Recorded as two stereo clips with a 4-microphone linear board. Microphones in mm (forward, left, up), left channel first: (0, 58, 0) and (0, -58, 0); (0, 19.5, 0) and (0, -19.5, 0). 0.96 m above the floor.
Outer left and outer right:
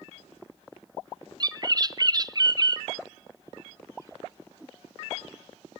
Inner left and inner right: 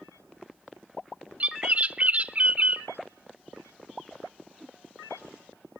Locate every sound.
1.4 s a bird: 35° right (ahead or behind), 0.8 m